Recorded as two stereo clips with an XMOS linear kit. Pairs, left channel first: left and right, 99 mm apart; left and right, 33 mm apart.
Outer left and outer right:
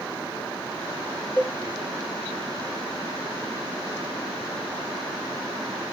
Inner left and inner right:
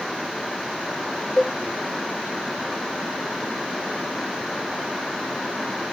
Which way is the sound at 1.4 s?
10° left (ahead or behind).